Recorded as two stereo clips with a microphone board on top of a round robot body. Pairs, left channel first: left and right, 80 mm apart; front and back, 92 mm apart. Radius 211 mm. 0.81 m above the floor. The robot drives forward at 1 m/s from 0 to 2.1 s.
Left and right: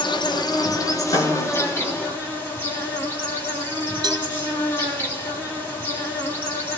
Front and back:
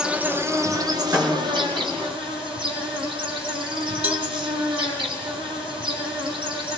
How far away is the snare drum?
About 3.5 m.